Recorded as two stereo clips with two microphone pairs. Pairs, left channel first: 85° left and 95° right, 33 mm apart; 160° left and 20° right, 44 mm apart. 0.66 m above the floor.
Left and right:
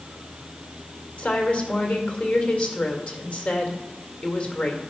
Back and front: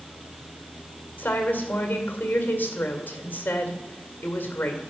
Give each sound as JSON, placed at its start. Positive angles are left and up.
{"t": 1.2, "sound": "a woman speaking", "azimuth_deg": 125, "distance_m": 2.0}